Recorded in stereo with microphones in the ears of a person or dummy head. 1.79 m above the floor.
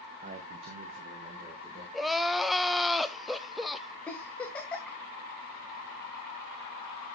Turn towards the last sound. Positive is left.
turn(degrees=10)  # may be behind; listen again after turning